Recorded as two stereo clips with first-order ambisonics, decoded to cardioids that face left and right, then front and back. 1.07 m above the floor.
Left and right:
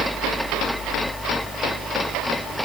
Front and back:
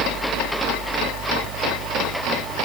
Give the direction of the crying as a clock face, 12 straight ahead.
I don't hear crying.